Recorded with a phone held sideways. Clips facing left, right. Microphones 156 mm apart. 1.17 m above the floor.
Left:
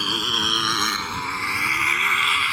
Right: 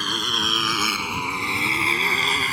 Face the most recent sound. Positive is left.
turn(degrees=-45)  # may be behind; listen again after turning